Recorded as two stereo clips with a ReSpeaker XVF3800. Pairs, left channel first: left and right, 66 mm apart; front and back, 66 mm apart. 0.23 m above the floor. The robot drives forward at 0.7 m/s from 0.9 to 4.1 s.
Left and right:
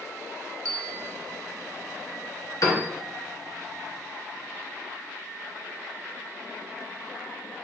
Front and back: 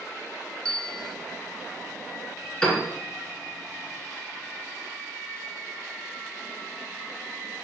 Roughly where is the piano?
Left.